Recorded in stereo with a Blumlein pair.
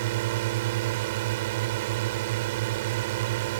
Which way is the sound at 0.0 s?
50° right.